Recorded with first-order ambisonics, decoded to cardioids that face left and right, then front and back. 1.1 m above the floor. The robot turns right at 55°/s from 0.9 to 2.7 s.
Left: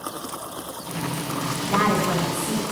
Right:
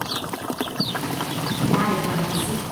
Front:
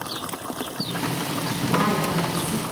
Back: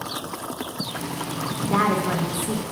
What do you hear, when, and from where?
1.6 s a woman speaking: 125° left, 1.0 m; by 2.6 s straight behind, 1.0 m